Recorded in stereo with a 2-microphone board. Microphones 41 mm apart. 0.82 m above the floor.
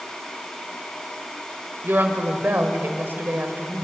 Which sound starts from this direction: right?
A woman speaking, at 1.8 s.